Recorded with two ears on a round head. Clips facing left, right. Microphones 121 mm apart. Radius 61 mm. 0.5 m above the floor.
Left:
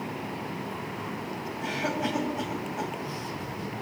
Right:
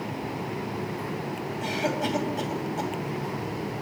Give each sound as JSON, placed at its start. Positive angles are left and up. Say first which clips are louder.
{"t": 1.6, "sound": "a cough", "louder": "right 2 dB", "side_deg": -30, "distance_m": 2.5}